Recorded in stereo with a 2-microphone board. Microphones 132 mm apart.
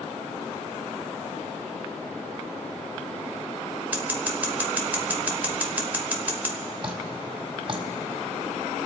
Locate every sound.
3.9 s scissors: 15° right (ahead or behind), 1.4 m
6.8 s dripping: 40° right (ahead or behind), 1.6 m